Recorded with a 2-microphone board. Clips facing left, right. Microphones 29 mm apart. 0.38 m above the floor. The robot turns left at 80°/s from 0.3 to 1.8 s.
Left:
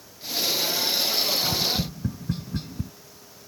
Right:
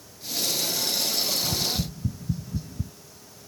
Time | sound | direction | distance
1.4 | tapping | 60° left (ahead or behind) | ?